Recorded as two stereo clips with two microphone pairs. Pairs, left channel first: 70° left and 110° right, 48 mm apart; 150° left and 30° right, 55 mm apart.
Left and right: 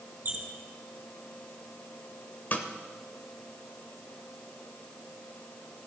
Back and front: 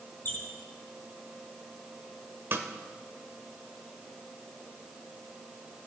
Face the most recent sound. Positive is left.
turn(degrees=20)